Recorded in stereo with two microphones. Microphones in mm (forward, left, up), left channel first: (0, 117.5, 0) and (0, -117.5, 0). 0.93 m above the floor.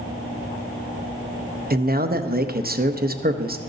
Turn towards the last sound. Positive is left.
turn(degrees=-40)  # may be behind; listen again after turning